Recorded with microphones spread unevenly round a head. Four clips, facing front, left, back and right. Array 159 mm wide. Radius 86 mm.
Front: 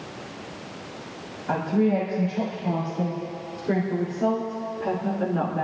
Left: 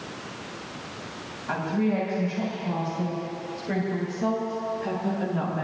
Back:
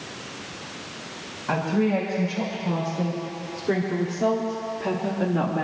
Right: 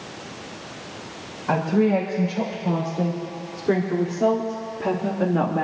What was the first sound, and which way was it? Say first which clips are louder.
A woman speaking: right 6 dB, front 1 dB; 90° right.